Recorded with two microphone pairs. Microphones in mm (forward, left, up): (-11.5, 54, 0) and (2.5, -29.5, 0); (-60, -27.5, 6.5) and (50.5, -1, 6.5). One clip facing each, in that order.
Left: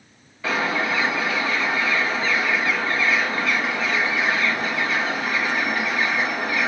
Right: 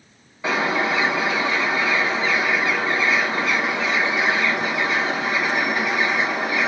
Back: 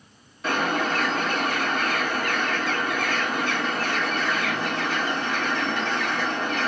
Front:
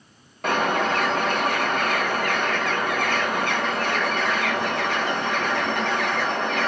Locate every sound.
0.4 s a bird: 10° right, 1.8 m